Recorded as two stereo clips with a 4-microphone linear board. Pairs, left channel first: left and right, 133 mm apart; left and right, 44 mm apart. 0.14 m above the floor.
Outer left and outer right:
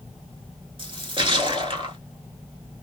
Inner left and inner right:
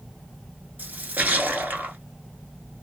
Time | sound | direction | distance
0.8 | a splash | 40° right (ahead or behind) | 0.7 m